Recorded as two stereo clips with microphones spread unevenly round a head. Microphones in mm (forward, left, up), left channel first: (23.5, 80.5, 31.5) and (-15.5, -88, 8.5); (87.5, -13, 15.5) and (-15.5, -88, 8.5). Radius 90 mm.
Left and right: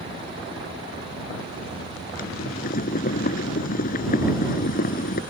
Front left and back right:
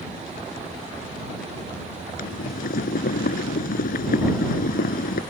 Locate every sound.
2.2 s boiling: 35° left